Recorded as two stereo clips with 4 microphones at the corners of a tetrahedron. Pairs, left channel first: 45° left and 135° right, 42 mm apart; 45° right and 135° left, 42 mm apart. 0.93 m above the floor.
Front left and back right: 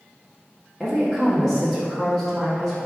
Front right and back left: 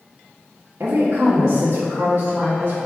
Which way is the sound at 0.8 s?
130° left.